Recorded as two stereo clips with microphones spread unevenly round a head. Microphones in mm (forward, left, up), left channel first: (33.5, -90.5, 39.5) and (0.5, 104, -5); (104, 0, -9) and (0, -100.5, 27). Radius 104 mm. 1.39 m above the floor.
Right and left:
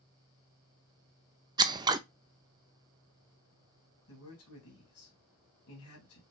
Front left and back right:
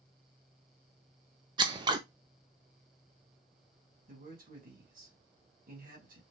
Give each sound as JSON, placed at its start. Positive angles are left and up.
{"t": 1.6, "sound": "scissors", "azimuth_deg": 150, "distance_m": 0.6}
{"t": 4.1, "sound": "a man speaking", "azimuth_deg": -110, "distance_m": 2.0}